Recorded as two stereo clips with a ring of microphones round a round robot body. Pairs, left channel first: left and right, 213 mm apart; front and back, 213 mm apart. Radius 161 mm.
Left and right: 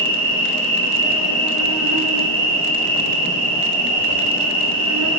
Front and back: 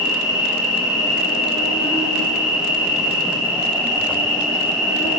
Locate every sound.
0.0 s an insect: 100° right, 1.5 m